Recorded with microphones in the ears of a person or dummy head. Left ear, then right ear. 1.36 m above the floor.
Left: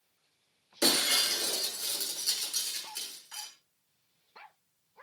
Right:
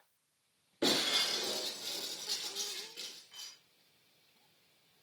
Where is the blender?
No blender in this recording.